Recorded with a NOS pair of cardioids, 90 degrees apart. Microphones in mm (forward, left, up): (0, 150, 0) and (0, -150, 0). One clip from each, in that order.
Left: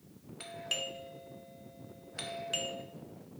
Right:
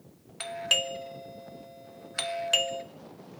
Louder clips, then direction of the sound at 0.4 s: Right 10 dB; 50° right.